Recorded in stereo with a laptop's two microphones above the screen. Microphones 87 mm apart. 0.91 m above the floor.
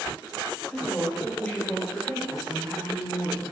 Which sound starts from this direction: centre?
A woman speaking, at 0.7 s.